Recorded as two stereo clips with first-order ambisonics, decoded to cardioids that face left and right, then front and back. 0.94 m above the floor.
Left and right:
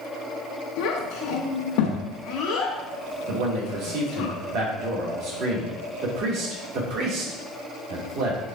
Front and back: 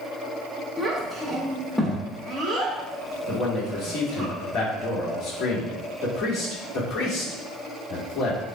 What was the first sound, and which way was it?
A child speaking, 90° left.